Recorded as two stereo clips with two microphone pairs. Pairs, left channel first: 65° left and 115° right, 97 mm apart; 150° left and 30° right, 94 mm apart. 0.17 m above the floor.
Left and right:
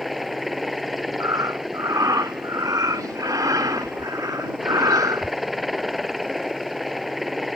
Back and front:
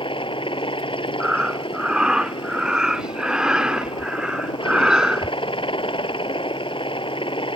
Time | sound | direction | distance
0.0 | a helicopter | 155° left | ?
1.2 | breathing | 100° right | ?